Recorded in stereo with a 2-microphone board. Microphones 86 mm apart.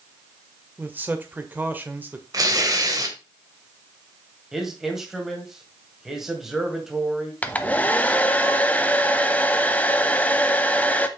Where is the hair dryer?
20° left (ahead or behind), 0.7 m.